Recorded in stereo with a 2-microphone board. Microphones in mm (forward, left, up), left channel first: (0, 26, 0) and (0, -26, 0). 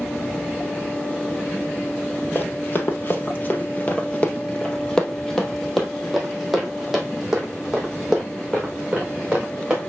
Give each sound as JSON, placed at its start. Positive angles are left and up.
{"t": 2.4, "sound": "running footsteps", "side_deg": 40, "distance_m": 2.0}